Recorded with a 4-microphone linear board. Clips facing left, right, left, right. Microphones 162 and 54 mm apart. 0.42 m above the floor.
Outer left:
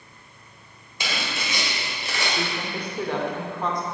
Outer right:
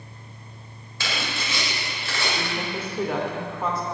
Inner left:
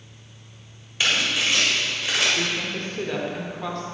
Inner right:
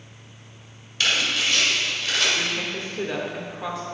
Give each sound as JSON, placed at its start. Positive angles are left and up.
{"t": 1.0, "sound": "tearing paper", "side_deg": 20, "distance_m": 1.9}
{"t": 2.4, "sound": "a woman speaking", "side_deg": -5, "distance_m": 0.8}